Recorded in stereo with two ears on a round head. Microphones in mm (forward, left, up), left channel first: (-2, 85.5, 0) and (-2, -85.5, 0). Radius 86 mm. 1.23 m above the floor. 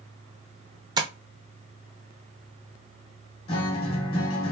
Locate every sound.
1.0 s tapping: 20° right (ahead or behind), 0.6 m
3.5 s a guitar: 30° left (ahead or behind), 1.2 m